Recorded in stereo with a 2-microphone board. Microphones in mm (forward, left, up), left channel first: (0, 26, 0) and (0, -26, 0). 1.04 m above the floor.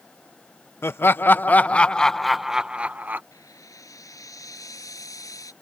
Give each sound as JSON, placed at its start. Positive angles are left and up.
{"t": 0.8, "sound": "laughter", "side_deg": 45}
{"t": 3.3, "sound": "frying", "side_deg": 90}